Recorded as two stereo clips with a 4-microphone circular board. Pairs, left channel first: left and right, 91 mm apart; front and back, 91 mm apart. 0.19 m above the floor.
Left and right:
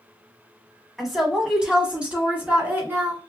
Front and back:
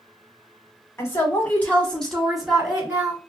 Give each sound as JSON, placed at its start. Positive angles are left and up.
{"t": 1.0, "sound": "a woman speaking", "azimuth_deg": -5, "distance_m": 1.4}